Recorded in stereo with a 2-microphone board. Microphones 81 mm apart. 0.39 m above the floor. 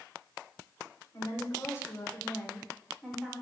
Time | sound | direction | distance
1.1 | a woman speaking | 40° left (ahead or behind) | 1.3 m